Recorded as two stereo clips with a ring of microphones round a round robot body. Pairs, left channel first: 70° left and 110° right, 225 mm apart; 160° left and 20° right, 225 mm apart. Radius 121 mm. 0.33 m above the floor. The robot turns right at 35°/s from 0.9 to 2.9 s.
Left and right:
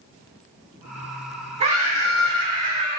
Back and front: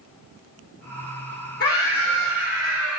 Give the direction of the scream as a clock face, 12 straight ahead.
6 o'clock.